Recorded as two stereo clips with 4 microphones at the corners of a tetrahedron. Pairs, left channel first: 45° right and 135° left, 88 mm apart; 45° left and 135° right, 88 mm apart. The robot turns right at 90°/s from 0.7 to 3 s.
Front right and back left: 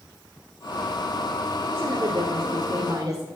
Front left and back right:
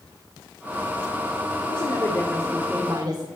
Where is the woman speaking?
65° left, 3 m; by 3.3 s 175° right, 3 m.